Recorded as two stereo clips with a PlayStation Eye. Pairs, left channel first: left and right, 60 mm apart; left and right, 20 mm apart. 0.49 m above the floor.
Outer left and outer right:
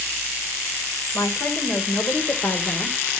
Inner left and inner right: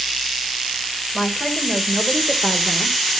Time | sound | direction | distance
1.1 | a woman speaking | 50° left (ahead or behind) | 2.5 m